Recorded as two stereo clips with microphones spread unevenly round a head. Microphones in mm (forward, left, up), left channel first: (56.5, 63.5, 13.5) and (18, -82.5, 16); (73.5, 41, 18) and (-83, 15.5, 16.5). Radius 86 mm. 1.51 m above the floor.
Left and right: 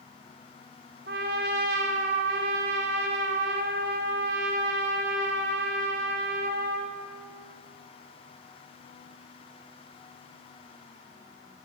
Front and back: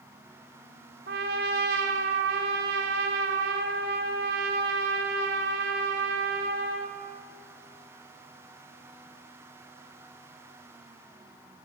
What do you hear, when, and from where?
1.1 s a trumpet: 140° right, 4 m